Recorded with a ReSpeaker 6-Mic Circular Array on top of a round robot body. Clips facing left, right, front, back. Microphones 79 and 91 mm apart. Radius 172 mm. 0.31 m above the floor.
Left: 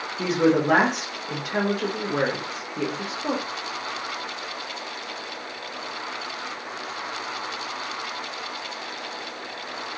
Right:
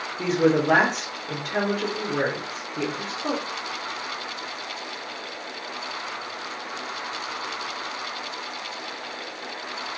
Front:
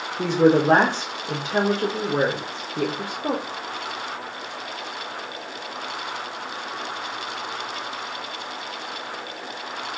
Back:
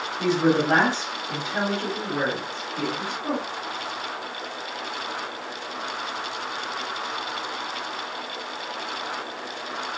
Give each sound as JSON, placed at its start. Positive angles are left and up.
{"t": 0.2, "sound": "a woman speaking", "azimuth_deg": 10, "distance_m": 1.4}